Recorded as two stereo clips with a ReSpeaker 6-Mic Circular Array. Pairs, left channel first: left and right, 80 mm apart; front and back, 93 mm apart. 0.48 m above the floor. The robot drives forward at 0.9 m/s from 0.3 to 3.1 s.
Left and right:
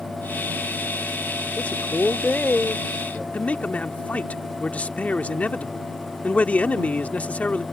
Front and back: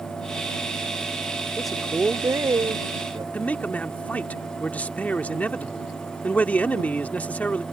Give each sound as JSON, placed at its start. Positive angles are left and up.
{"t": 1.6, "sound": "a man speaking", "azimuth_deg": 70}
{"t": 3.3, "sound": "a man speaking", "azimuth_deg": 50}